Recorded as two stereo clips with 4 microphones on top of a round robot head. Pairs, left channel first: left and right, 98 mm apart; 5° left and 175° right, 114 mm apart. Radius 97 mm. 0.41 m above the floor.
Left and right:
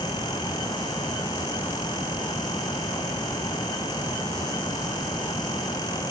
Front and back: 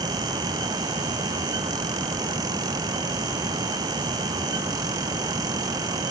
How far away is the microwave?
I don't hear a microwave.